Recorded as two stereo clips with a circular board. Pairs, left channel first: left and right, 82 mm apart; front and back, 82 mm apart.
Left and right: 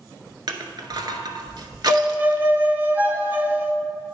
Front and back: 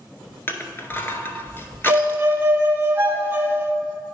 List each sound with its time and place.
0.5 s crushing: 60° right, 0.7 m
1.9 s a violin: 140° right, 0.6 m